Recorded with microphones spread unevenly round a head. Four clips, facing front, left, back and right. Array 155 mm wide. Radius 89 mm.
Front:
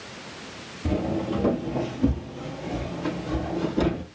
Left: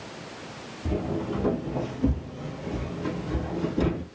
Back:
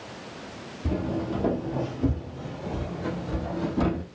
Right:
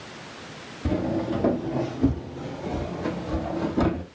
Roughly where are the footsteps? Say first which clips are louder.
Right 4 dB, front 3 dB; ahead right.